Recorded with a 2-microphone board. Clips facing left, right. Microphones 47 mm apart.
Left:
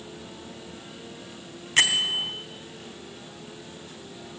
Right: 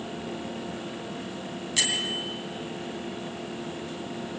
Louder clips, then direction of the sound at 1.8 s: Left 6 dB; 45° left (ahead or behind).